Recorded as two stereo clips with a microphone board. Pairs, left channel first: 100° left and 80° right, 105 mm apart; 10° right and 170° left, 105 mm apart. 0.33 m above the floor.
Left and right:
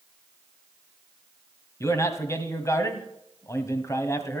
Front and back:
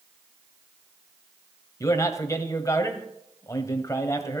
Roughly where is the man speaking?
Ahead left.